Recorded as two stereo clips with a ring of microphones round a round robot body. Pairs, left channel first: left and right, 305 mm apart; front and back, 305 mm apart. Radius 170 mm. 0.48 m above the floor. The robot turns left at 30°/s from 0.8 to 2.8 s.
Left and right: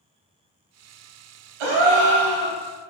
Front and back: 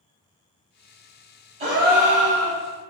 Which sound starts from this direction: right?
A gasp, at 1.6 s.